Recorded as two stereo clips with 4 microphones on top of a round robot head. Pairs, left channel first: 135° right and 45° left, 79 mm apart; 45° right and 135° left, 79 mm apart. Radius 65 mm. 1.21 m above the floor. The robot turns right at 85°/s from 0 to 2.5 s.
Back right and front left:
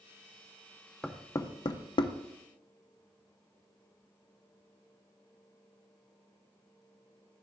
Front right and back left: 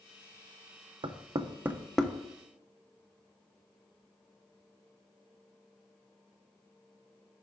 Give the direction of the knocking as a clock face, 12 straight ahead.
7 o'clock.